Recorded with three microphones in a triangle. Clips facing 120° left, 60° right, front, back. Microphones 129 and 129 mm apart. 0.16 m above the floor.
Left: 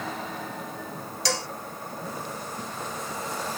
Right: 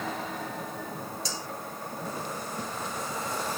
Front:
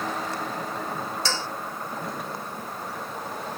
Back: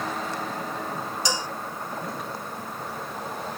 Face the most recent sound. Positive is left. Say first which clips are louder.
# left 8 dB, back 3 dB
turn(degrees=105)